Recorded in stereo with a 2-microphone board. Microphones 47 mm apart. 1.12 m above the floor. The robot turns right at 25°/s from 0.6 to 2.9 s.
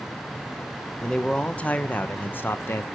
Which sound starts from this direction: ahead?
A man speaking, at 1.0 s.